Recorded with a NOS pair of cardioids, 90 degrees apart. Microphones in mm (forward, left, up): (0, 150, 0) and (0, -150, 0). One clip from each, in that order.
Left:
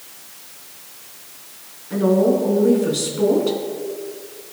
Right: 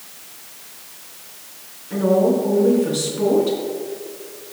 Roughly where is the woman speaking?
Ahead.